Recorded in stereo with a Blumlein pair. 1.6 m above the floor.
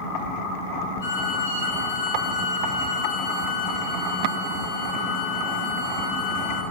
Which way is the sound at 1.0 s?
55° left.